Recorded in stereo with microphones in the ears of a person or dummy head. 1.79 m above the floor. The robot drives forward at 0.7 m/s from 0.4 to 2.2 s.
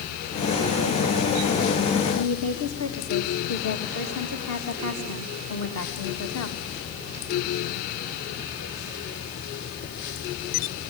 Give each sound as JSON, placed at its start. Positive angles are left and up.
{"t": 2.1, "sound": "a woman speaking", "side_deg": 85, "distance_m": 3.0}